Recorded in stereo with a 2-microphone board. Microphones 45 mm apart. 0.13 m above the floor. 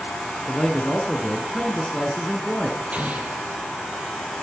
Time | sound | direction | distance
0.5 | a man speaking | 5° left (ahead or behind) | 1.3 m
2.9 | an explosion | 35° right (ahead or behind) | 2.0 m